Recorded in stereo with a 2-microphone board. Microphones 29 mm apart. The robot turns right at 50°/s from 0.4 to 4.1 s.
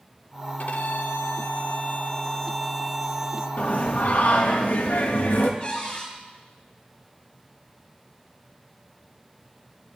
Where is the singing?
60° left (ahead or behind), 2 m; by 5.5 s 70° left (ahead or behind), 2 m.